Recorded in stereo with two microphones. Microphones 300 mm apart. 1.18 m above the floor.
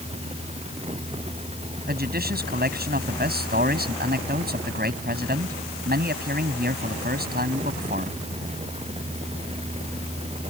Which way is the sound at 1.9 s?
30° right (ahead or behind).